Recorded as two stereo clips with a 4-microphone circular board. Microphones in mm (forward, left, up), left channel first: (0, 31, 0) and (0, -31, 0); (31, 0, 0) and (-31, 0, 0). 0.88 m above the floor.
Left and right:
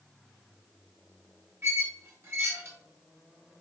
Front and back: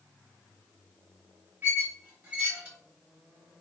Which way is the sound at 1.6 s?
125° right.